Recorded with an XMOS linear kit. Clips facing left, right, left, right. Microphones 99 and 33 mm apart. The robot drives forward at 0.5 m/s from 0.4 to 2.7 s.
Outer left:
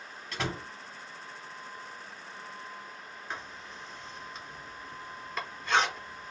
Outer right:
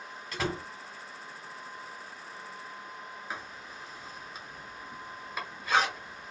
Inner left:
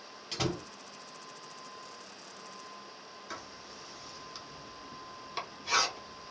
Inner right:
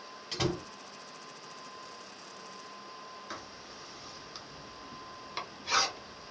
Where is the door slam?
Centre (ahead or behind), 1.0 m.